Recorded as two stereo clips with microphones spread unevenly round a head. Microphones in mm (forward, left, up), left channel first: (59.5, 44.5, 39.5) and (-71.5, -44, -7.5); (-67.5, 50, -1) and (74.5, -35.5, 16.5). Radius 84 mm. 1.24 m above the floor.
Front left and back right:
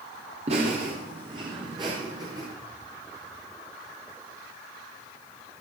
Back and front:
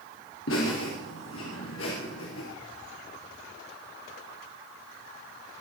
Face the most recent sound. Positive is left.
turn(degrees=145)